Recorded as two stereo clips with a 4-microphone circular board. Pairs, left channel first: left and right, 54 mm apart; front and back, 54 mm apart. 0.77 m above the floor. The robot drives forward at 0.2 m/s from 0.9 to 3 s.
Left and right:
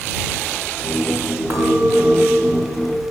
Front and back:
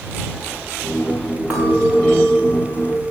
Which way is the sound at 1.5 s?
105° right.